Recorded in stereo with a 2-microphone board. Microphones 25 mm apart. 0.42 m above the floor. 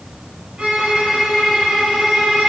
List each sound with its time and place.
0.6 s a violin: 40° right (ahead or behind), 2 m